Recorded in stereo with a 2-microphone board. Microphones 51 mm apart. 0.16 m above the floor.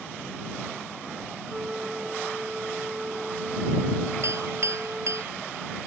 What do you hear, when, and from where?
1.5 s a flute: 15° right (ahead or behind)
4.2 s a clink: 65° right (ahead or behind)